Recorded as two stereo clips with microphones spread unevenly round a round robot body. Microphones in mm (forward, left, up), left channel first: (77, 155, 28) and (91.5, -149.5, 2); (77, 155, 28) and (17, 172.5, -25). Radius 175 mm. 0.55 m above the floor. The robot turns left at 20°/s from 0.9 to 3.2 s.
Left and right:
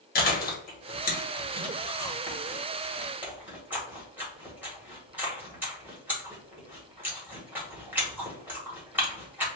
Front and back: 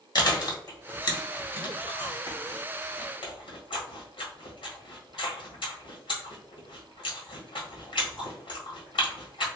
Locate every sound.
0.1 s chewing: 35° left, 1.5 m; by 9.5 s 10° right, 1.5 m